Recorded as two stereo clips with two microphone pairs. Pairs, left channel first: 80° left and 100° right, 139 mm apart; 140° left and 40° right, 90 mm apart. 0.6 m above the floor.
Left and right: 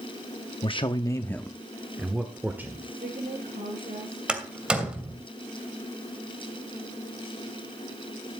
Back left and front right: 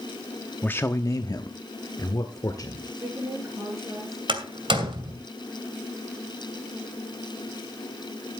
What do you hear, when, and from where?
0.6 s a man speaking: 80° left, 0.8 m; by 2.9 s 175° right, 1.8 m
3.0 s a woman speaking: 95° right, 8.5 m
4.3 s a door slam: 20° right, 2.5 m